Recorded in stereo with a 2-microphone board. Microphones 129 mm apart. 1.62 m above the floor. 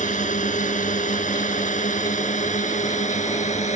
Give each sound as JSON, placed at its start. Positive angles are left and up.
{"t": 0.0, "sound": "a drone", "side_deg": 85}